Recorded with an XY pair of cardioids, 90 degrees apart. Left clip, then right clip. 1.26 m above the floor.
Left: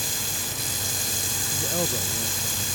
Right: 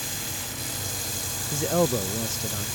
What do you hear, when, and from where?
0.0 s running water: 35° left
1.5 s a man speaking: 55° right